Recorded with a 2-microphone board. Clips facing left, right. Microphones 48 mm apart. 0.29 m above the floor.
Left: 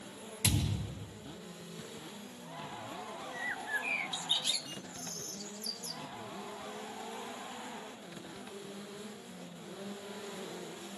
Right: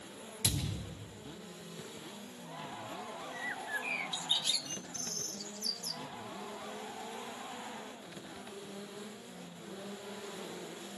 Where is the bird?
10° left (ahead or behind), 0.5 m.